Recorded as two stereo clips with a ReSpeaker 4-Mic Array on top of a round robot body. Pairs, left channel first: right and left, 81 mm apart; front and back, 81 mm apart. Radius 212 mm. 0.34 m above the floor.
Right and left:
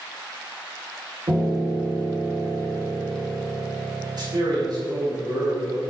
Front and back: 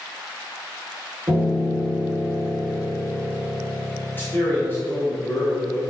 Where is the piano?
125° left, 2.5 m.